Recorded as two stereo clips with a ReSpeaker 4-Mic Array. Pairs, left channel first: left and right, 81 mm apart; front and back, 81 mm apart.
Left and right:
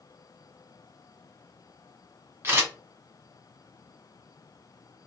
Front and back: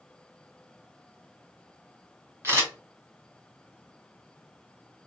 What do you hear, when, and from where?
2.4 s a camera shutter: 140° right, 1.8 m